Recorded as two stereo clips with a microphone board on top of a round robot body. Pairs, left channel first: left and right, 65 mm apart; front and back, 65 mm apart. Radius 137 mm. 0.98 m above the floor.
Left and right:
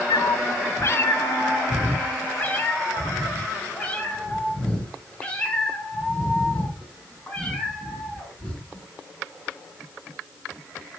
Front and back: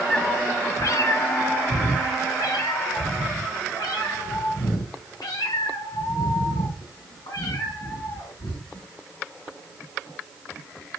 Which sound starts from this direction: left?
A cat meowing, at 0.1 s.